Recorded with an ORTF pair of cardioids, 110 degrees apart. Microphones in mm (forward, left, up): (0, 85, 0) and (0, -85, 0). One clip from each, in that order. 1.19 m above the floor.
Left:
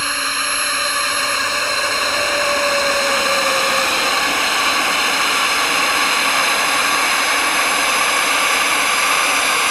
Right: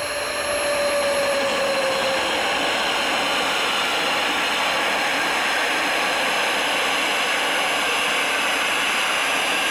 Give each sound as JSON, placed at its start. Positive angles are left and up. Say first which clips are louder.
{"t": 0.0, "sound": "a drone", "louder": "left 5 dB", "azimuth_deg": 55}